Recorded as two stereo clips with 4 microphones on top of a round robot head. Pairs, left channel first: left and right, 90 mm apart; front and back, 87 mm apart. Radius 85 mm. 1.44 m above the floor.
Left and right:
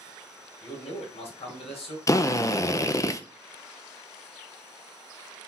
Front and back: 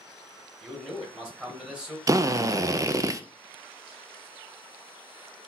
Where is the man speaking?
95° left, 1.8 m.